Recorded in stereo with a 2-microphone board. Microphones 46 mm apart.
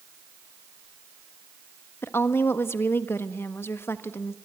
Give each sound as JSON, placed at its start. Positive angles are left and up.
{"t": 2.0, "sound": "a woman speaking", "side_deg": 60, "distance_m": 1.5}